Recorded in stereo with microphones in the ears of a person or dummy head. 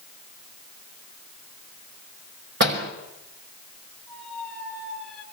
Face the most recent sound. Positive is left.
turn(degrees=5)  # may be behind; listen again after turning